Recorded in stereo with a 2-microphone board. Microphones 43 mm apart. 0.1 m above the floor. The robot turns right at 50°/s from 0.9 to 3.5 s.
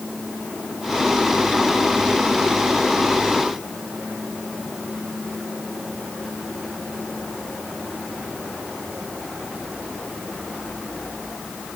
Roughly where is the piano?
I don't hear a piano.